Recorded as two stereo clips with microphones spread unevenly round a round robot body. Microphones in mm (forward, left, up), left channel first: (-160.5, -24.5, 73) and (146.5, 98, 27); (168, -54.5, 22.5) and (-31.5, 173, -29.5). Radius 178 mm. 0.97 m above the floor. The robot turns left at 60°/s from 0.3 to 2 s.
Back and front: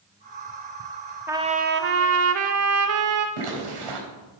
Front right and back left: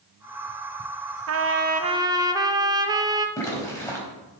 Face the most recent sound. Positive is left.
turn(degrees=30)